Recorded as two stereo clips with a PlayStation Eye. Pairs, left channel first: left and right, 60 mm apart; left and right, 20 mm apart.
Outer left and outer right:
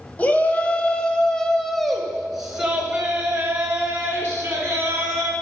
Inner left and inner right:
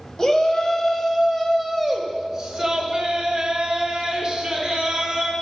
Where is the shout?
25° left (ahead or behind), 1.1 m; by 5.3 s 30° right (ahead or behind), 2 m.